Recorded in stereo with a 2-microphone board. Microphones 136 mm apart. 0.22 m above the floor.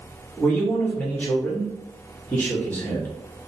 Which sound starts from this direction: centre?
A man speaking, at 0.4 s.